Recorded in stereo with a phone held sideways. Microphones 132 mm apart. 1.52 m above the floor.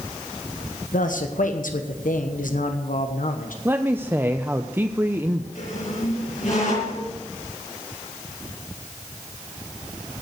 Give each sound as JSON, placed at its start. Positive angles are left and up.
{"t": 0.9, "sound": "a man speaking", "side_deg": 85, "distance_m": 1.1}
{"t": 3.6, "sound": "a man speaking", "side_deg": -15, "distance_m": 0.5}
{"t": 5.5, "sound": "a squeak", "side_deg": 75, "distance_m": 6.5}